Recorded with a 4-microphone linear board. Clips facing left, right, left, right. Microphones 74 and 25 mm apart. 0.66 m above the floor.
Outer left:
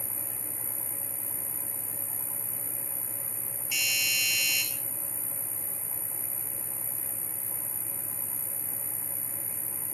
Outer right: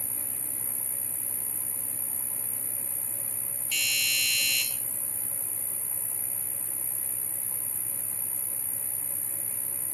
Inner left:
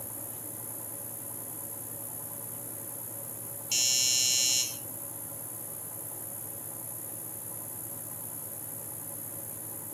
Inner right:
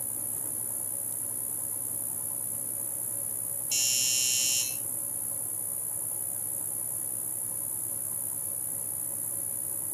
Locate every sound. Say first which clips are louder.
0.0 s an insect: outer left 2 dB, inner right 2 dB; 25° left (ahead or behind), 8 m
3.7 s a doorbell: even, inner left 2 dB; 15° left (ahead or behind), 6.5 m